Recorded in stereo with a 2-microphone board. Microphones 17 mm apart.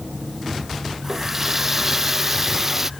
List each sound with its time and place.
1.0 s a running tap: 20° right (ahead or behind)